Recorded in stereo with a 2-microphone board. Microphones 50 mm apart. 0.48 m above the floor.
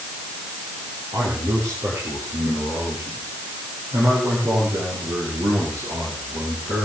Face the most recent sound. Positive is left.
turn(degrees=-85)